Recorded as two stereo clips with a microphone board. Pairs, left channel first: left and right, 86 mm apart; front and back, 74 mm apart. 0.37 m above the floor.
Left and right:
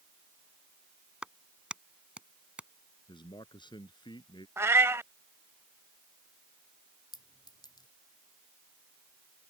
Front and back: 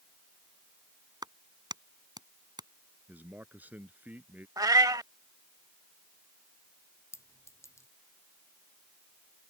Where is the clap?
170° right.